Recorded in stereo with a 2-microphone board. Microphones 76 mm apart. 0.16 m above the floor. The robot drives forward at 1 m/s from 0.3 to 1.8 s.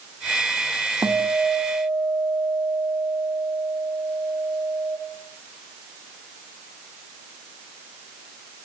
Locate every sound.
1.0 s a guitar: 50° right (ahead or behind), 3 m; by 5.0 s 40° right (ahead or behind), 3.5 m